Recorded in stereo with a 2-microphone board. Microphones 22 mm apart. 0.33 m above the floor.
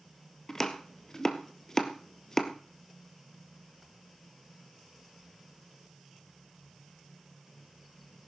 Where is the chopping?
25° left (ahead or behind), 1.1 m.